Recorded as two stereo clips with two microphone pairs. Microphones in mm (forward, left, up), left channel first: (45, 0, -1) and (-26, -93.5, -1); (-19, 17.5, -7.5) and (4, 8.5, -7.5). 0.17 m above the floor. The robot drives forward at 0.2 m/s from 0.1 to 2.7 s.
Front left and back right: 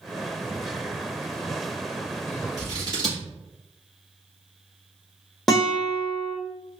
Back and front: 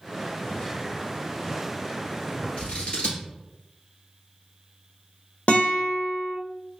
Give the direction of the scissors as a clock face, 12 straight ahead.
6 o'clock.